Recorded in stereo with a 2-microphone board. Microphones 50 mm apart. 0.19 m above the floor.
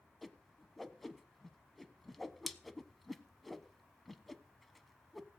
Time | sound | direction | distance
0.2 | a whoosh | centre (ahead or behind) | 0.9 m